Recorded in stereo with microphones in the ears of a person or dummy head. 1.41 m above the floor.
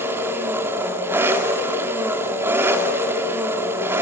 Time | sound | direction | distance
0.0 | an engine running | 15° right (ahead or behind) | 2.5 m